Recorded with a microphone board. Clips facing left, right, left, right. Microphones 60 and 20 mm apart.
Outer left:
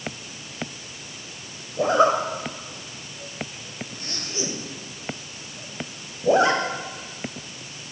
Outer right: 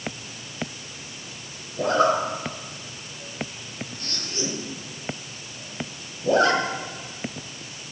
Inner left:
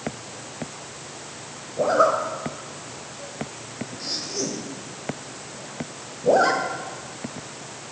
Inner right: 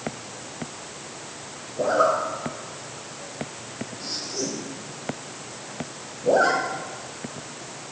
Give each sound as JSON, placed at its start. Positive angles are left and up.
{"t": 1.8, "sound": "a zipper", "side_deg": 20, "distance_m": 1.4}